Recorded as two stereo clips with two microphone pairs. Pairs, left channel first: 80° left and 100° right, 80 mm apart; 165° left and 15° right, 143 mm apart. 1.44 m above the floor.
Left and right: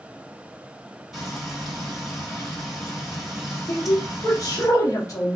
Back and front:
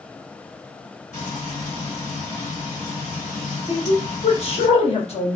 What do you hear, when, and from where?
1.1 s frying: 170° left, 1.4 m
3.7 s a woman speaking: 120° left, 0.9 m